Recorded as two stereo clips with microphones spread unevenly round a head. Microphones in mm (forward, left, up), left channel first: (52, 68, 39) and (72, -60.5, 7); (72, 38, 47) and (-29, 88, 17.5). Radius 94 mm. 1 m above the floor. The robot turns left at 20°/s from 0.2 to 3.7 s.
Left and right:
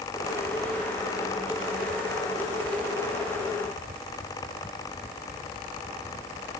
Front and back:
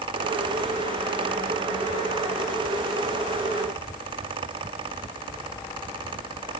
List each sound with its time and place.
Only background noise.